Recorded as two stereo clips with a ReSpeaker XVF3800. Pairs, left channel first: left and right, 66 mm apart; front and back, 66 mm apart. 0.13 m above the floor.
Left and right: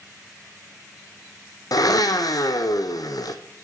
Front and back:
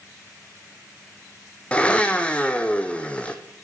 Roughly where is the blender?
Left.